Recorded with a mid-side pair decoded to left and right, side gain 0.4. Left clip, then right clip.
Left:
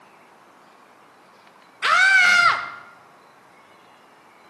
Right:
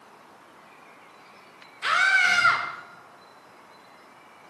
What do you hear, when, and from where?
1.8 s a scream: 55° left, 2.5 m